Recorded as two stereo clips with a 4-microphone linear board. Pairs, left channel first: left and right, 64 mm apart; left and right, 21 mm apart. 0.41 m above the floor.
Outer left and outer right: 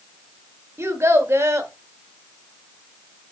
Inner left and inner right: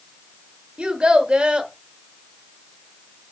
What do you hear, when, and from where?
0.8 s a child speaking: 45° right (ahead or behind), 1.3 m